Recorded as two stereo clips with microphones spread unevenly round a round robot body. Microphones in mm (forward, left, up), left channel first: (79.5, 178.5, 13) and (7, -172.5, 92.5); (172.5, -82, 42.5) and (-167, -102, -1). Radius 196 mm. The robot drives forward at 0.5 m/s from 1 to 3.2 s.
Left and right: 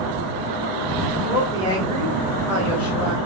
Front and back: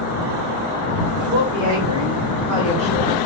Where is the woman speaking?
140° left, 1.4 m; by 3.2 s 160° left, 2 m.